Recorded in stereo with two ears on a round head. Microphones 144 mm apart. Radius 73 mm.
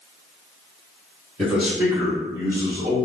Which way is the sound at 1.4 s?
Centre (ahead or behind).